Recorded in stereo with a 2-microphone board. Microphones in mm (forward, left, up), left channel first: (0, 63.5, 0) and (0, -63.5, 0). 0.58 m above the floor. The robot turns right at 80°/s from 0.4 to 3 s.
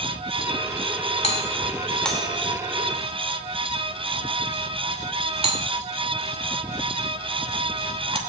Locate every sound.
1.2 s a doorbell: 55° left (ahead or behind), 2.5 m; by 8.2 s 55° right (ahead or behind), 2.5 m